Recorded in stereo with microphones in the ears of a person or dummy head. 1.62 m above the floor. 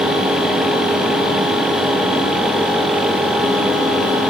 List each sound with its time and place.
Only background noise.